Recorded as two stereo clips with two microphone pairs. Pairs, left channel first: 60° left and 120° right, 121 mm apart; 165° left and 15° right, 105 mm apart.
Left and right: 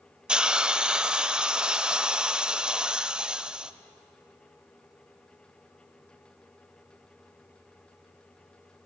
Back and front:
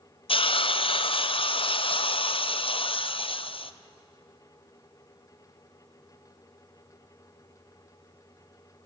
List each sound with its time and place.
0.3 s a hiss: 155° left, 0.5 m